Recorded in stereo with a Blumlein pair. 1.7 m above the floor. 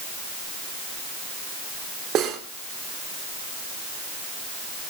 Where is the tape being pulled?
I don't hear tape being pulled.